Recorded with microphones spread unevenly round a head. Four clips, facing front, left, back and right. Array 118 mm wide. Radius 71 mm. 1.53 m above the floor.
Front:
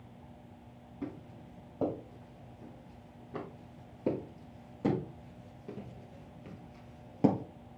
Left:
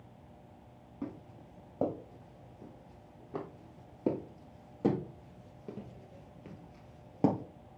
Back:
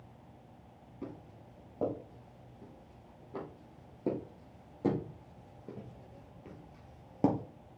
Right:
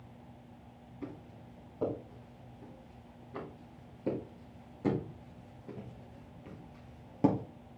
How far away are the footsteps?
About 4 m.